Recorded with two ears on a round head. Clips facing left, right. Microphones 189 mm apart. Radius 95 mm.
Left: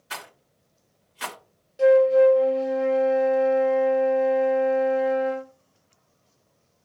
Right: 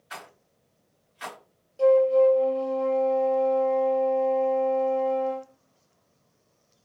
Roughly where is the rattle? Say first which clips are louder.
Left 2 dB; left.